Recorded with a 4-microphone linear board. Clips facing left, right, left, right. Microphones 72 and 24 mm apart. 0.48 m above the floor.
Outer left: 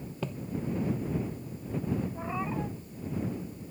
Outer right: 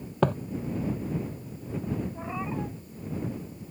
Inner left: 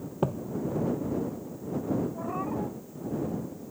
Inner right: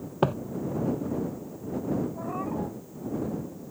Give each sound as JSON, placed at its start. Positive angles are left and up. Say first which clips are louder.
{"t": 0.2, "sound": "footsteps", "louder": "outer right 13 dB, inner right 4 dB", "side_deg": -65}
{"t": 2.1, "sound": "a cat meowing", "louder": "even, even", "side_deg": 5}